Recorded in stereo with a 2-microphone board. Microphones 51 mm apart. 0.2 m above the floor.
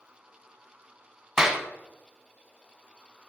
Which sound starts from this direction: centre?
A clap, at 1.4 s.